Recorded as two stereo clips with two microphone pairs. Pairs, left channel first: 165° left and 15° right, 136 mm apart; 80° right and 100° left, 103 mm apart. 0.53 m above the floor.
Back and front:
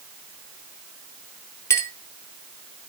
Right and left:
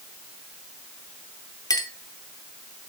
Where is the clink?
125° right, 0.7 m.